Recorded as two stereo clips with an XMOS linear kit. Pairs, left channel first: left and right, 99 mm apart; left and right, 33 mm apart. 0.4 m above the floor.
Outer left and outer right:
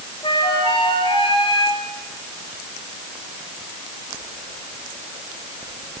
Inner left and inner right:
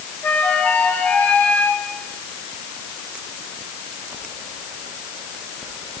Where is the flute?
55° left (ahead or behind), 3.5 m.